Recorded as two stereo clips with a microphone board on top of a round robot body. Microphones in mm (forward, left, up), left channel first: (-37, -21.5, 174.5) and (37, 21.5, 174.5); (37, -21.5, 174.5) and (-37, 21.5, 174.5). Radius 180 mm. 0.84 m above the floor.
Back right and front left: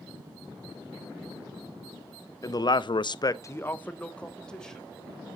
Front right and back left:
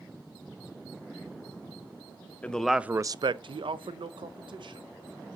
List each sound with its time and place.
2.4 s a man speaking: 105° right, 0.6 m; by 5.4 s 125° left, 1.8 m